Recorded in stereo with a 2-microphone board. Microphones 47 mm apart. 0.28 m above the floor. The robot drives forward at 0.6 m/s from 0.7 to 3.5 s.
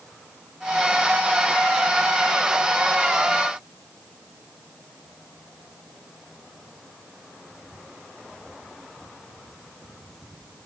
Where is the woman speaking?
No woman speaking in this recording.